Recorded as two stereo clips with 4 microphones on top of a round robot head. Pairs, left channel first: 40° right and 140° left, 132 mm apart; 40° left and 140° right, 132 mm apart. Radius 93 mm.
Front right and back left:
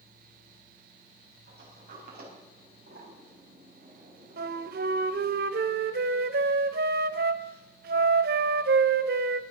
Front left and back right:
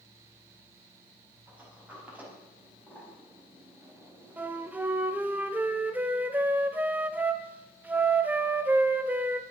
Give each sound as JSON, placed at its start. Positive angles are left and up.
{"t": 1.5, "sound": "a sliding door", "azimuth_deg": 140, "distance_m": 5.0}
{"t": 4.4, "sound": "a flute", "azimuth_deg": 140, "distance_m": 0.9}